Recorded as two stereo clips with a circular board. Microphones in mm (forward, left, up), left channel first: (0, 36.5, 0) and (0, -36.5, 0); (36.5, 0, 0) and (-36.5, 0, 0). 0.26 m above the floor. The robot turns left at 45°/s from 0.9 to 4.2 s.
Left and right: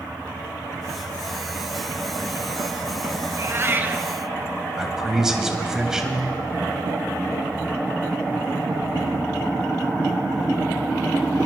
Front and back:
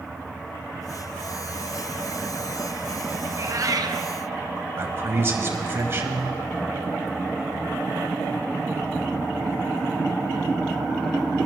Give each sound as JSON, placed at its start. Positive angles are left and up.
{"t": 3.3, "sound": "a cat meowing", "azimuth_deg": -130, "distance_m": 0.9}
{"t": 4.8, "sound": "a man speaking", "azimuth_deg": -165, "distance_m": 1.2}